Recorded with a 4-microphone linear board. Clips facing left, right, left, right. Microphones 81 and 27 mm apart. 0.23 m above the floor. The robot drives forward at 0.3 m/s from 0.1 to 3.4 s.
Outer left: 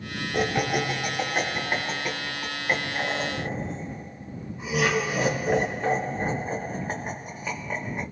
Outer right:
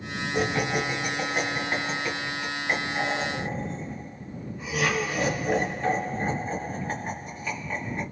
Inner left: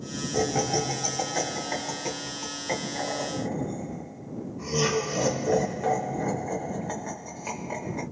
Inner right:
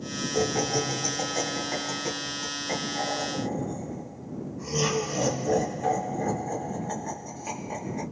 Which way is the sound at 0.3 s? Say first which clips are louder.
Outer left 1 dB, inner left 1 dB; 20° left (ahead or behind).